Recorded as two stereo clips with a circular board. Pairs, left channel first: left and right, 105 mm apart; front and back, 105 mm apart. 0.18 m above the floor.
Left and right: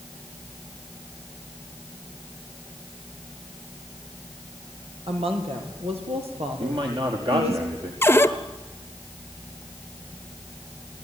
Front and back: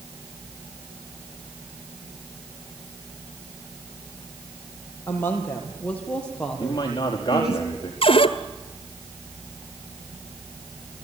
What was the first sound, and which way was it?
A woman speaking, 70° right.